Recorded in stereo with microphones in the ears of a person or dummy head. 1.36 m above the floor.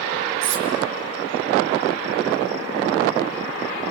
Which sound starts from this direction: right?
Cutlery clinking, at 0.4 s.